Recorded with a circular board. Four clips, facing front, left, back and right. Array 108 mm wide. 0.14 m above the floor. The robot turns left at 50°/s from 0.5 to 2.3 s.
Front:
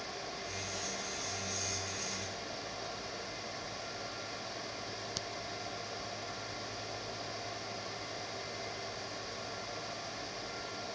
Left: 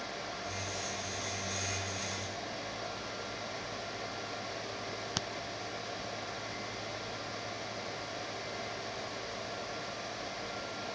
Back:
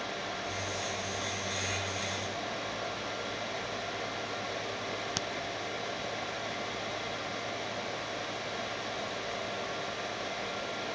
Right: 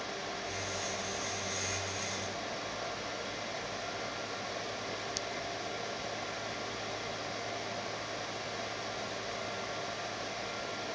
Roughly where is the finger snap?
Behind left.